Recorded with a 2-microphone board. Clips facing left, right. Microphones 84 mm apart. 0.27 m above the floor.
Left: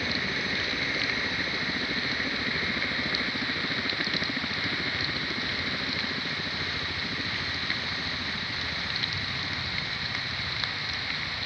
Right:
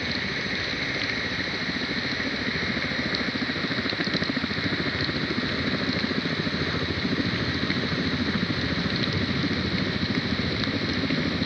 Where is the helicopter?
5° right (ahead or behind); by 11.5 s 60° right (ahead or behind).